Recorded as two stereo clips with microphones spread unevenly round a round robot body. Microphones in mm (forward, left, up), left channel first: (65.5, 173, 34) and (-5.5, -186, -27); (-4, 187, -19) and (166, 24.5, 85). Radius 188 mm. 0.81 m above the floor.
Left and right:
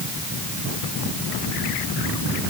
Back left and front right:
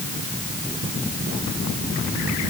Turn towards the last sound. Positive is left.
No sound to turn to.